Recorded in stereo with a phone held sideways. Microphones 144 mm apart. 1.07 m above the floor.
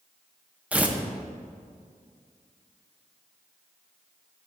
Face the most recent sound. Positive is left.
turn(degrees=-10)  # may be behind; listen again after turning